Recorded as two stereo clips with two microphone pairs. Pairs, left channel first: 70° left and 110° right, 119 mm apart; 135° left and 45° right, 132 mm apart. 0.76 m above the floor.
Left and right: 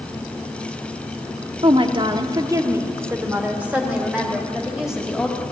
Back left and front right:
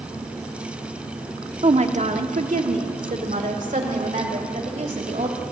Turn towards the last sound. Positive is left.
turn(degrees=-20)